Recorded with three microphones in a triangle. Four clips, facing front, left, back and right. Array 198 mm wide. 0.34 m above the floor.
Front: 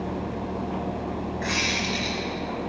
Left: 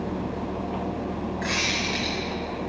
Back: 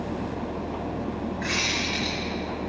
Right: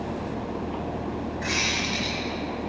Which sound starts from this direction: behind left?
A squeak, at 1.4 s.